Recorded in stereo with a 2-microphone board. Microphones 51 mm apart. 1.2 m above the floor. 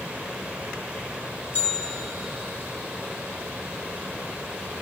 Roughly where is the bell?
Left.